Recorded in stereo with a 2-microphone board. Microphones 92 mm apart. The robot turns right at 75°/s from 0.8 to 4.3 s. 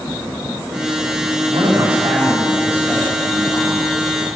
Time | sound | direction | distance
1.5 | a man speaking | 110° right | 5 m